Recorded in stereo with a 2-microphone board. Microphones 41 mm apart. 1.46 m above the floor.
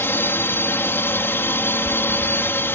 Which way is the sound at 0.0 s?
75° left (ahead or behind).